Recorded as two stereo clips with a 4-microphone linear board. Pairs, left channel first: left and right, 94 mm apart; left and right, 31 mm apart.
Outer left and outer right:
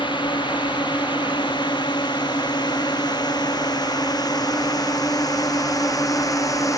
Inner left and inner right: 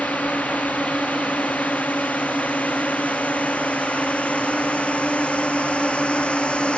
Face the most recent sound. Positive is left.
turn(degrees=35)  # may be behind; listen again after turning